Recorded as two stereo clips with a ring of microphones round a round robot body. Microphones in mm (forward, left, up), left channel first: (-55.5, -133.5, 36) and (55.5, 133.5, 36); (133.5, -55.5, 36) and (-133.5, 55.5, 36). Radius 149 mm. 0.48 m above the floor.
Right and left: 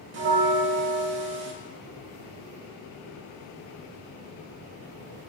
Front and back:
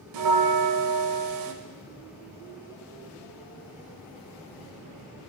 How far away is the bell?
About 0.6 m.